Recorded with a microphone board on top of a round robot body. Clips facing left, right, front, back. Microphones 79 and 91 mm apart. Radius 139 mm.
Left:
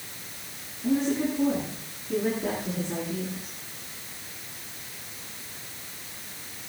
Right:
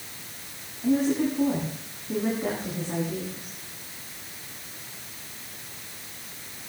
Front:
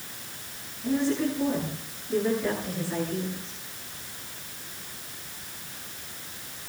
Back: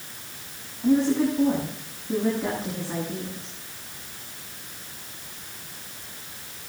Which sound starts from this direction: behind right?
A woman speaking, at 0.8 s.